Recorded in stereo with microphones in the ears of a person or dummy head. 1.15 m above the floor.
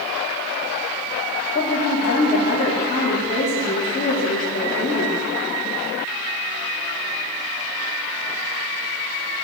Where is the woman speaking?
40° left (ahead or behind), 2 m.